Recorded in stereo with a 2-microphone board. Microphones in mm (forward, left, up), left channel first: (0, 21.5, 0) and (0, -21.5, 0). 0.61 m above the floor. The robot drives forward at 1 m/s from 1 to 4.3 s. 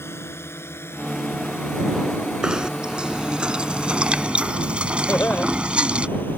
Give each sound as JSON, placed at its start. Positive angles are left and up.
{"t": 0.0, "sound": "a drone", "side_deg": 75}
{"t": 2.4, "sound": "knocking", "side_deg": -20}
{"t": 5.1, "sound": "laughter", "side_deg": 60}